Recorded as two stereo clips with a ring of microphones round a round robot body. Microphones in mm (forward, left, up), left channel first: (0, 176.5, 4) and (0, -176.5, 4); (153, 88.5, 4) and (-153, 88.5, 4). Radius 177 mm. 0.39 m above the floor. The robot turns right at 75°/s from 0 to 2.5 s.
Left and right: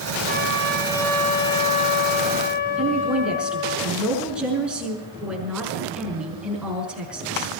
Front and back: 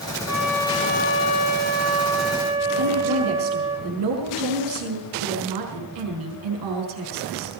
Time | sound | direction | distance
0.3 | a trumpet | 60° right | 4.5 m
2.8 | a woman speaking | 175° right | 5.5 m